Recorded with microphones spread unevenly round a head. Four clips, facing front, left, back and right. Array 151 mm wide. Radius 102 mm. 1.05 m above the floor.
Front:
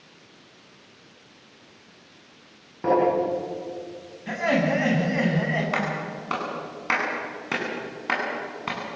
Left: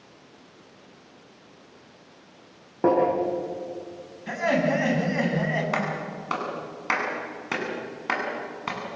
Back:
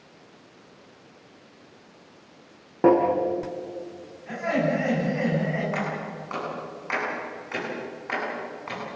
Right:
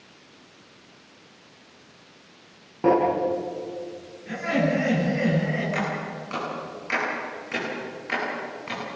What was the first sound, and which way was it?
Tapping, 155° left.